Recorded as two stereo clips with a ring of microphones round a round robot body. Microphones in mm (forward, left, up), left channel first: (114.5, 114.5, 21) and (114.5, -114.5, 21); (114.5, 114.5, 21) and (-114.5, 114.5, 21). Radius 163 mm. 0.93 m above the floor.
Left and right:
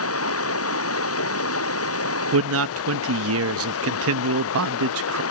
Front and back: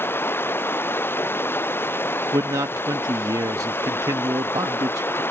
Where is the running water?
80° left.